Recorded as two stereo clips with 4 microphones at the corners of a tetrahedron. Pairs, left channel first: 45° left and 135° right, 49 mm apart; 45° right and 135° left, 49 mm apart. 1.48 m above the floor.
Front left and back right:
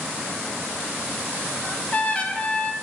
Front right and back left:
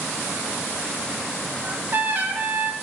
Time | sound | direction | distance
1.6 | a trumpet | 100° left | 0.7 m